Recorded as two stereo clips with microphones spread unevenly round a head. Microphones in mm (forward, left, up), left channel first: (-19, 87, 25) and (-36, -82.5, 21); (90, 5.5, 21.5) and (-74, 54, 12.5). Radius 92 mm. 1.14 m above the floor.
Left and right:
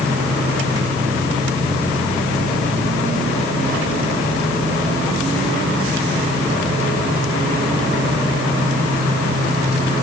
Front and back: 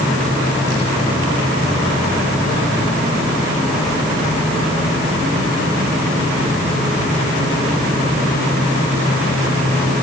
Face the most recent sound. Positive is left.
No sound to turn to.